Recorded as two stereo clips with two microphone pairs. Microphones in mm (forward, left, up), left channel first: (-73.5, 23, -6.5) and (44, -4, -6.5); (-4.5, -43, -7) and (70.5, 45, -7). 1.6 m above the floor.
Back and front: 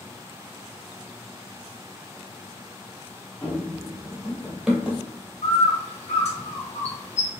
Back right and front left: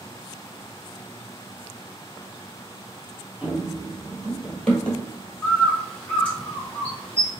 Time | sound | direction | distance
3.4 | running footsteps | 100° left | 1.6 m
5.4 | a bird | 150° left | 1.4 m